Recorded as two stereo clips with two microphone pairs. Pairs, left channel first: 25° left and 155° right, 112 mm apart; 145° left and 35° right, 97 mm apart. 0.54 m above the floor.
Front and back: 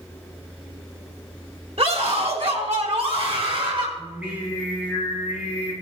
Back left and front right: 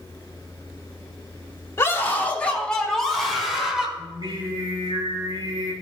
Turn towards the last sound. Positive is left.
turn(degrees=-75)